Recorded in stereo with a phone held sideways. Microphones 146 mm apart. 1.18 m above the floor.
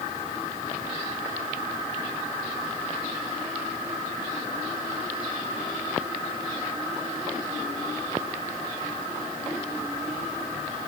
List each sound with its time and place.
Only background noise.